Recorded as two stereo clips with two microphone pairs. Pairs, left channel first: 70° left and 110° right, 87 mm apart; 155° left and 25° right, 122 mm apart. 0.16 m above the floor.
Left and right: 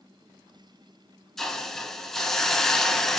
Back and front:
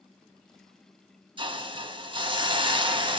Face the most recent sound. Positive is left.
turn(degrees=-10)